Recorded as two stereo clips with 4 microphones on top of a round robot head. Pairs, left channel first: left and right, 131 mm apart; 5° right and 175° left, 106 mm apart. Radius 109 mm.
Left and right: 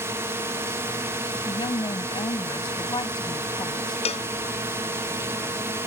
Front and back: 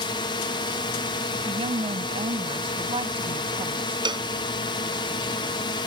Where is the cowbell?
130° left.